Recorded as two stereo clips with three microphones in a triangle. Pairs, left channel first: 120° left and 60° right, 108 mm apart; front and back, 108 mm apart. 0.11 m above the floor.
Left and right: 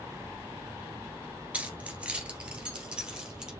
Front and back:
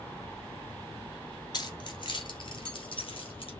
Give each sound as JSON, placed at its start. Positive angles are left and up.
{"t": 1.5, "sound": "keys jangling", "azimuth_deg": 10, "distance_m": 1.4}